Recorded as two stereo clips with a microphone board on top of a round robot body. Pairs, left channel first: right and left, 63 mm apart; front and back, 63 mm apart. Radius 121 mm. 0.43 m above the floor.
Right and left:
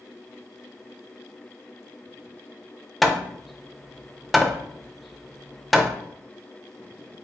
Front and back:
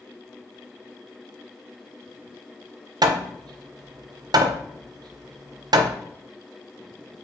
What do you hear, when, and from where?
3.0 s hammering: straight behind, 0.5 m